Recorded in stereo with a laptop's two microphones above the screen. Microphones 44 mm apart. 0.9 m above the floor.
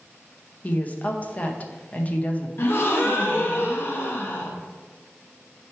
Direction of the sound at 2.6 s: 50° left (ahead or behind).